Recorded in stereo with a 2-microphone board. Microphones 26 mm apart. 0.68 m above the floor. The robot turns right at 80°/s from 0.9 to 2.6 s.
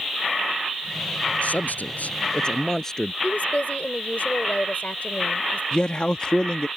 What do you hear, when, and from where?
1.4 s a man speaking: 60° left; by 3.1 s 155° left
3.2 s a woman speaking: 65° left (ahead or behind)
5.7 s a man speaking: 40° left (ahead or behind)